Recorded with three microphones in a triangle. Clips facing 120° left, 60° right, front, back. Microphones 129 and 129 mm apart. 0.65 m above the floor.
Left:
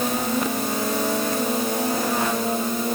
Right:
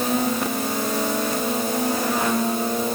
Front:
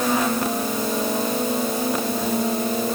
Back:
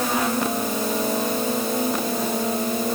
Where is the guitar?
I don't hear a guitar.